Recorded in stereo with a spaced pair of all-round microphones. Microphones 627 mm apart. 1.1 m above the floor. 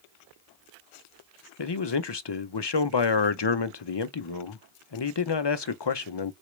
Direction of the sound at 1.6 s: 45° left (ahead or behind).